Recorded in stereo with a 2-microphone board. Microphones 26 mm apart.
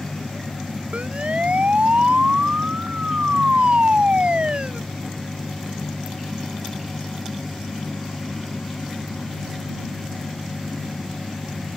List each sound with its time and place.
0.9 s a siren: 55° right (ahead or behind); by 4.8 s 50° right (ahead or behind)